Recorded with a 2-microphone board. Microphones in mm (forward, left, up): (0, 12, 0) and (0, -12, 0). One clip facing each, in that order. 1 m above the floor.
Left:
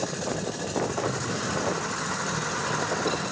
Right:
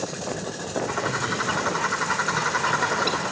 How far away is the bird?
About 1.4 m.